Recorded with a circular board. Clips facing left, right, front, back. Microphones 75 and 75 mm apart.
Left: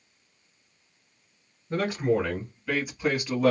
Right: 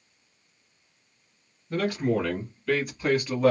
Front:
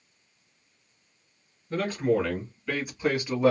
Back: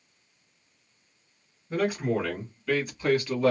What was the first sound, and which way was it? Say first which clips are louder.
A man speaking: left 1 dB, front 1 dB; 115° left.